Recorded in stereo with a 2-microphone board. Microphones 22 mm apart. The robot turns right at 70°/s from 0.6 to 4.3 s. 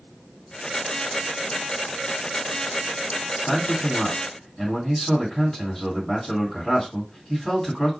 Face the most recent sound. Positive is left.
turn(degrees=160)